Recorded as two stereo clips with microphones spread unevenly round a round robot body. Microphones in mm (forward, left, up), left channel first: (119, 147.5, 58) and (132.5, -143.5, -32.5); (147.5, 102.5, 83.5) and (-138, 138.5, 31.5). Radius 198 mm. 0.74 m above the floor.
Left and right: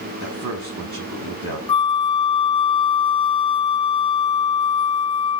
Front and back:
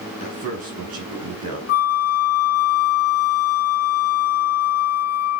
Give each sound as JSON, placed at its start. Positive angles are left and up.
{"t": 0.2, "sound": "a man speaking", "azimuth_deg": -140, "distance_m": 5.0}
{"t": 1.7, "sound": "a flute", "azimuth_deg": 25, "distance_m": 1.1}